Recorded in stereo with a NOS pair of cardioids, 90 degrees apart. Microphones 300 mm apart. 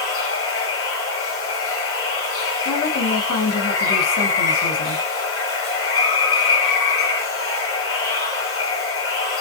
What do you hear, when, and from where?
0.0 s running water: 45° left, 1.5 m
2.6 s a woman speaking: 55° left, 1.2 m